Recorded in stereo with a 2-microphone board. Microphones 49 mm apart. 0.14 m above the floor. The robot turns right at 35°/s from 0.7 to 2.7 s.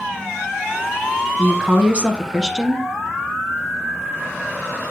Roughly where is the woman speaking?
Centre.